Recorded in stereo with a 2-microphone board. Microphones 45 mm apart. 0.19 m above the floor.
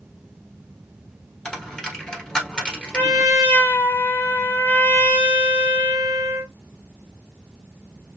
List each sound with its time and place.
1.4 s a dropped coin: 15° left (ahead or behind), 1.5 m
2.9 s a trumpet: 65° left (ahead or behind), 1.8 m